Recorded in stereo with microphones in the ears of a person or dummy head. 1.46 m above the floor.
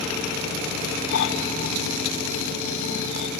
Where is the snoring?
85° left, 7 m.